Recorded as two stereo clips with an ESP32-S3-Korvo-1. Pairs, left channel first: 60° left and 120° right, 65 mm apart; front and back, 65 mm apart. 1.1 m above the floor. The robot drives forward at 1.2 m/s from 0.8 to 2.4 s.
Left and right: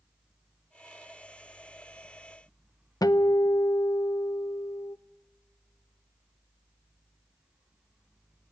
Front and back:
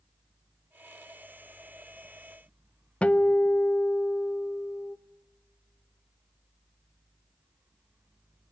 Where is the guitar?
70° left, 0.6 m.